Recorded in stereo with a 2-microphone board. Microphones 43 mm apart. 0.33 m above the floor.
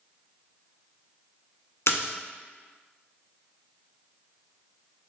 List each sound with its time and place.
1.9 s a splash: 85° left, 0.6 m